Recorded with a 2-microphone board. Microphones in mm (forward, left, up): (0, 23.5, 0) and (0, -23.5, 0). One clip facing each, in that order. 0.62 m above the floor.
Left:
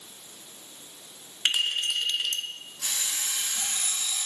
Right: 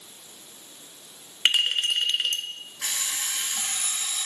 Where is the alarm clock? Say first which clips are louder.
Right 2 dB; 70° right (ahead or behind), 1.9 m.